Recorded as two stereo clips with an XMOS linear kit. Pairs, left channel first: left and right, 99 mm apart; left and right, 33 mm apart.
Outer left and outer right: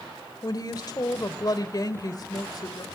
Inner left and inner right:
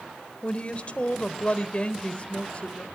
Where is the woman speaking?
45° left (ahead or behind), 1.3 m.